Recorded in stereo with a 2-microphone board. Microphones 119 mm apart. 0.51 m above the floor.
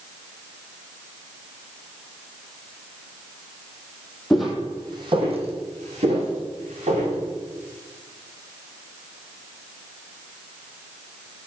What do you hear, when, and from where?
4.3 s footsteps: 5° left (ahead or behind), 1.1 m; by 7.2 s 85° right, 3.5 m